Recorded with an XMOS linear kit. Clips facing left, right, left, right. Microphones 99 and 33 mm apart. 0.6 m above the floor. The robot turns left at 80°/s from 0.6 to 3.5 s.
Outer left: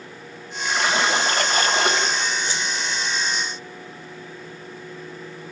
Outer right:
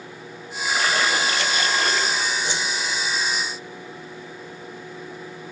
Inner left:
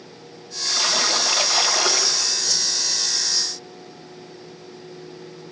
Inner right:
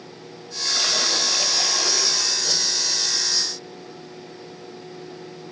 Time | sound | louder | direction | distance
0.7 | a splash | outer left 1 dB, inner left 1 dB | 175° right | 2.5 m
2.5 | a whoosh | outer right 1 dB, inner right 1 dB | 15° right (ahead or behind) | 1.4 m